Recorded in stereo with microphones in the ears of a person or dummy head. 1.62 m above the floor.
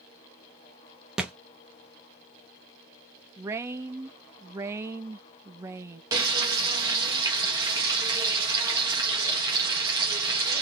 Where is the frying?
20° right (ahead or behind), 1.4 m.